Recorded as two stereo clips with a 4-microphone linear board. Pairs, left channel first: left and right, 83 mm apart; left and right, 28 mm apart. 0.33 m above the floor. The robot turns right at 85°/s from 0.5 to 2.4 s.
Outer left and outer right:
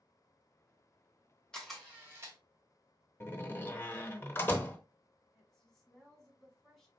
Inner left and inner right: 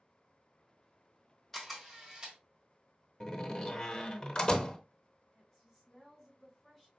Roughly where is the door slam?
Left.